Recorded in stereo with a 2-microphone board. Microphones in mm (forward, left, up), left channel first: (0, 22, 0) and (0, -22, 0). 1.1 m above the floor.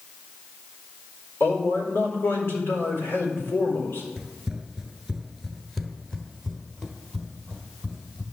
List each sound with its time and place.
1.4 s a man speaking: 70° left (ahead or behind), 4.5 m
4.2 s running footsteps: 15° right (ahead or behind), 1.1 m; by 8.2 s 10° left (ahead or behind), 2.5 m